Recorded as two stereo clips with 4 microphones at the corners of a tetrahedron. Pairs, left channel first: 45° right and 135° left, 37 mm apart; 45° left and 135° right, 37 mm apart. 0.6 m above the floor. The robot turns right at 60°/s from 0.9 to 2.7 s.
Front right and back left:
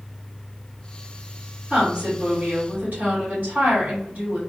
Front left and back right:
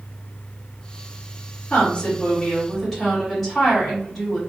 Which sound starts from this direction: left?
A woman speaking, at 1.7 s.